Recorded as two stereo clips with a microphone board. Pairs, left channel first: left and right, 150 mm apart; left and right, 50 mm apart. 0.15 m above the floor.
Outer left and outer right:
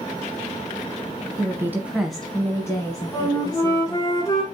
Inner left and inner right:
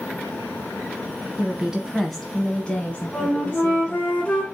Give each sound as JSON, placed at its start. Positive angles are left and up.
{"t": 1.4, "sound": "a woman speaking", "side_deg": -25, "distance_m": 1.1}
{"t": 3.1, "sound": "a flute", "side_deg": 25, "distance_m": 1.5}